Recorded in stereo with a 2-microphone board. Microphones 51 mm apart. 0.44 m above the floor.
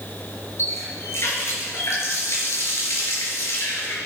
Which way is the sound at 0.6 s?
65° left (ahead or behind).